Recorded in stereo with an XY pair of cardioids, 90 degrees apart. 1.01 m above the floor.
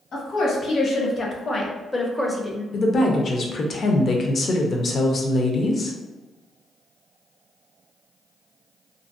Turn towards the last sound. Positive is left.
turn(degrees=50)